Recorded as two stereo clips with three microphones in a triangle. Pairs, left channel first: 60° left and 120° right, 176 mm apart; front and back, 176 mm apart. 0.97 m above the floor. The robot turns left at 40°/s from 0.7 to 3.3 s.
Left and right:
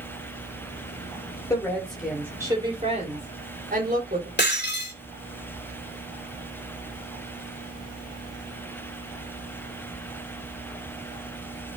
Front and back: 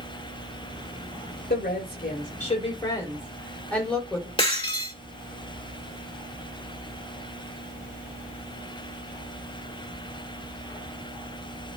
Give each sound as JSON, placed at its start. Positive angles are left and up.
{"t": 1.5, "sound": "a woman speaking", "azimuth_deg": -10, "distance_m": 4.0}
{"t": 4.4, "sound": "breaking glass", "azimuth_deg": 60, "distance_m": 2.0}